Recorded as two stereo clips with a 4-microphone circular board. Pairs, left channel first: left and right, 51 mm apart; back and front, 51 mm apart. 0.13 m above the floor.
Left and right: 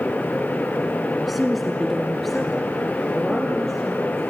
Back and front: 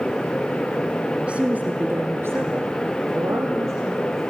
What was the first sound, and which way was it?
A woman speaking, straight ahead.